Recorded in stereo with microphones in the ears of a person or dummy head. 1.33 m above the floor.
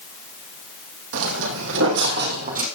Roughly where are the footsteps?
Right.